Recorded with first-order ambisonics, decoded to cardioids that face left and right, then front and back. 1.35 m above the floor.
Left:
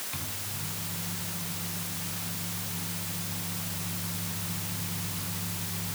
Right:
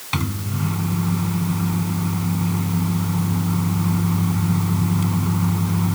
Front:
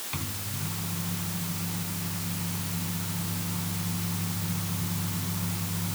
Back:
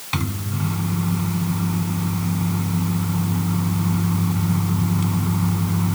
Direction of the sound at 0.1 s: 125° right.